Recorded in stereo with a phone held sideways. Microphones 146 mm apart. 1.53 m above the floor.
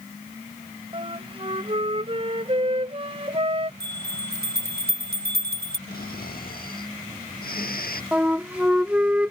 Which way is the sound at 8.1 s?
10° right (ahead or behind).